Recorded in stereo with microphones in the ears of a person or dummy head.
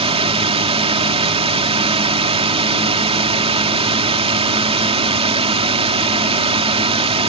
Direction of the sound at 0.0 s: 30° right (ahead or behind).